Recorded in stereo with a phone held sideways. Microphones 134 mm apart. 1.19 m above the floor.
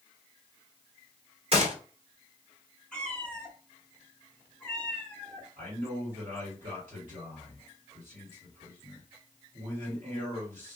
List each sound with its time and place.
1.5 s a gunshot: 45° right (ahead or behind), 1.9 m
2.9 s a cat meowing: 10° left (ahead or behind), 0.9 m
5.6 s a man speaking: 75° right (ahead or behind), 2.5 m